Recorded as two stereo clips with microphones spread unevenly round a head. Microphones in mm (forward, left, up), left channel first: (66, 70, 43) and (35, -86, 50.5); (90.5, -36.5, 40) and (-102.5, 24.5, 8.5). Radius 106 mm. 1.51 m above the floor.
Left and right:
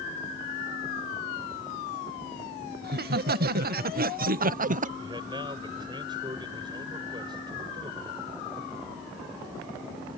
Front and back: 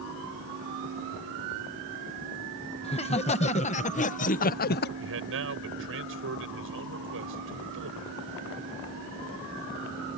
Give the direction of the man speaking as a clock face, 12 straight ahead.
6 o'clock.